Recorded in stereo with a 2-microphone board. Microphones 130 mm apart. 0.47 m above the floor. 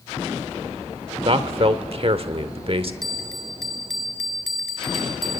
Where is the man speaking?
50° right (ahead or behind), 1.1 m.